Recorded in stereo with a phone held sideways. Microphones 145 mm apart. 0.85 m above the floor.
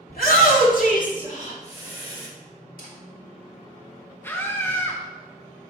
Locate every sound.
0.1 s a shout: 70° left (ahead or behind), 2 m; by 2.3 s 35° left (ahead or behind), 2.5 m
2.8 s a camera shutter: 70° left (ahead or behind), 2.5 m
4.2 s a scream: 15° left (ahead or behind), 0.7 m